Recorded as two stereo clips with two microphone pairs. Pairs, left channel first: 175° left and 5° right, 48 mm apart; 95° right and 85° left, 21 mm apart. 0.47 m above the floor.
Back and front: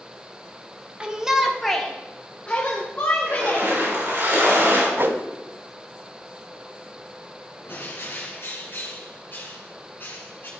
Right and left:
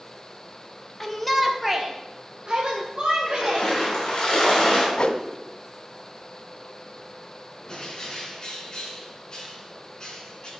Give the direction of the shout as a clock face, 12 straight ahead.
1 o'clock.